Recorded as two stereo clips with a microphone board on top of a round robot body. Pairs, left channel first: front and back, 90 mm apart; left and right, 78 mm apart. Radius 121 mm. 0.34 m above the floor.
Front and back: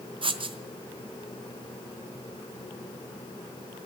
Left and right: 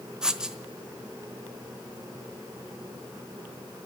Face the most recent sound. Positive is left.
turn(degrees=-170)